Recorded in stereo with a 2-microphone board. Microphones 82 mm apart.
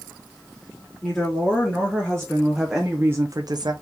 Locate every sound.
1.0 s a woman speaking: 15° left (ahead or behind), 2.5 m; by 3.7 s 55° right (ahead or behind), 0.6 m